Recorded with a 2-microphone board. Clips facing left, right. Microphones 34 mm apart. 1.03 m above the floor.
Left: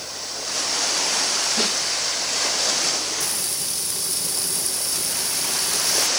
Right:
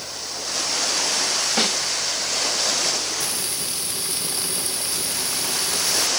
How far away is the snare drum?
About 5 m.